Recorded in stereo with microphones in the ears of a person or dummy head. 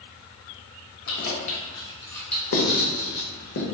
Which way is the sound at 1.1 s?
60° left (ahead or behind).